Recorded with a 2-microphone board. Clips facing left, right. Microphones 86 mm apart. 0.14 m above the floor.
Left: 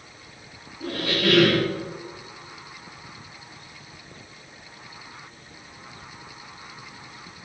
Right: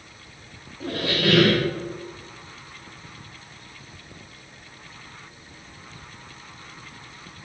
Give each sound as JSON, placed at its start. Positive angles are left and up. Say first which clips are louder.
{"t": 0.8, "sound": "a squeak", "louder": "even", "side_deg": -20, "distance_m": 1.4}